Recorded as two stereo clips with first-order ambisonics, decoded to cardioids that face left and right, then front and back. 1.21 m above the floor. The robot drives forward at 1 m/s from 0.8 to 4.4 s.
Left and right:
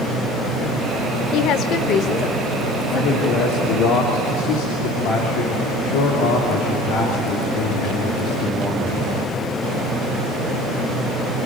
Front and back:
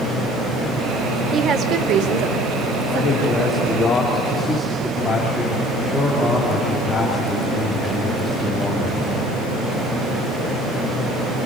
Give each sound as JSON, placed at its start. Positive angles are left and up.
{"t": 1.3, "sound": "a woman speaking", "azimuth_deg": 115, "distance_m": 1.0}
{"t": 2.9, "sound": "a man speaking", "azimuth_deg": 70, "distance_m": 3.0}